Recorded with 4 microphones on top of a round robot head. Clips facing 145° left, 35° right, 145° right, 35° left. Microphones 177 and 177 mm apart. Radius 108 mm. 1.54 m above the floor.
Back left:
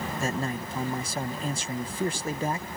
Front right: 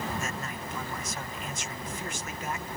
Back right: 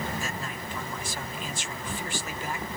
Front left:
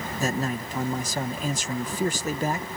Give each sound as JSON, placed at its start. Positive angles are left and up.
{"t": 0.2, "sound": "a man speaking", "azimuth_deg": 85}